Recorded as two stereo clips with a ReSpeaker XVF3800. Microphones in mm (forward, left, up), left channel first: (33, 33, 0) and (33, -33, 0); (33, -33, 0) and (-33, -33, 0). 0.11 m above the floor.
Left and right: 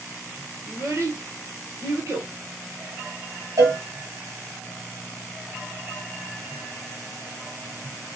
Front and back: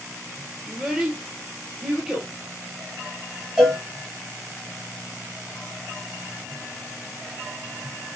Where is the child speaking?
100° right, 1.5 m.